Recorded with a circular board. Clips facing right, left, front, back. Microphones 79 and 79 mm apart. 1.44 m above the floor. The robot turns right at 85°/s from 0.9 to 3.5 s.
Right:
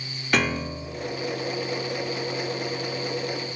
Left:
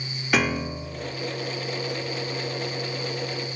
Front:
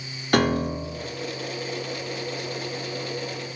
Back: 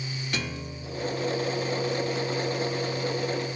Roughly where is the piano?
Ahead.